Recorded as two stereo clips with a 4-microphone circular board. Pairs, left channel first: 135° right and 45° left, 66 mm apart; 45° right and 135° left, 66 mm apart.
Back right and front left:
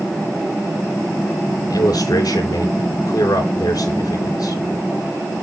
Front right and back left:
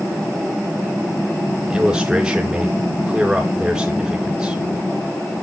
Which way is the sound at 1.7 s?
145° right.